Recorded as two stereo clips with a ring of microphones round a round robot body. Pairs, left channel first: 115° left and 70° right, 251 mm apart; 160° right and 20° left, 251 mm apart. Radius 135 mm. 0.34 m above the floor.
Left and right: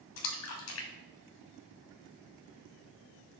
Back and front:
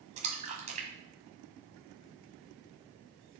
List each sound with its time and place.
0.2 s a splash: 85° left, 1.3 m